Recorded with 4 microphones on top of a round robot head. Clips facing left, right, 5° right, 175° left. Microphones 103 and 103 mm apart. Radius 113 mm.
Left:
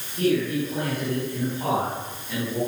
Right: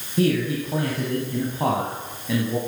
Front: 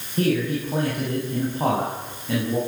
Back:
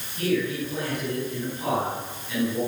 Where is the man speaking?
65° right, 8.5 m; by 2.6 s 55° right, 8.5 m.